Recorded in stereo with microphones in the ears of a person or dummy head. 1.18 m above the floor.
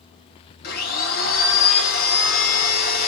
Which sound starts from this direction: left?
A blender, at 0.6 s.